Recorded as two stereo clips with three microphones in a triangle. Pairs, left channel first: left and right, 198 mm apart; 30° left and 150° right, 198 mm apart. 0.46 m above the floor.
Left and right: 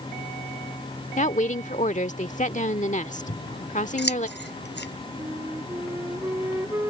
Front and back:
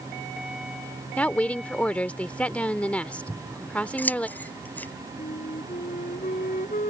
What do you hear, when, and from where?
1.1 s a woman speaking: 110° left
3.3 s scissors: 110° left
5.2 s a flute: 15° right